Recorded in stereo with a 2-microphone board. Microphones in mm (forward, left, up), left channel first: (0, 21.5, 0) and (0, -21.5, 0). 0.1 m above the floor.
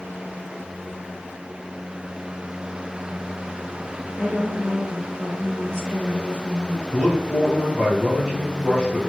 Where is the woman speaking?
35° left (ahead or behind), 1.8 m; by 7.0 s 20° right (ahead or behind), 1.6 m.